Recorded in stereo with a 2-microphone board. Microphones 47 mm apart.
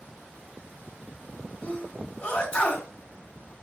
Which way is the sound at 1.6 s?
35° left (ahead or behind).